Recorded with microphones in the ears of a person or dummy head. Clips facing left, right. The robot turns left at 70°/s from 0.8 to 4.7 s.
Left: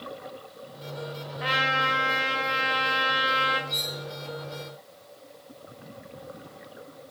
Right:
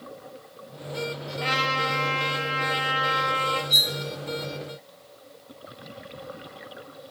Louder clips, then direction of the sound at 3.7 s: Right 3 dB; 75° right (ahead or behind).